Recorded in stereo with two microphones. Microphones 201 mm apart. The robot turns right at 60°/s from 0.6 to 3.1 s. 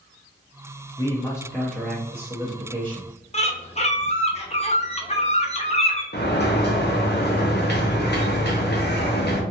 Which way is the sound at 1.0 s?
20° left (ahead or behind).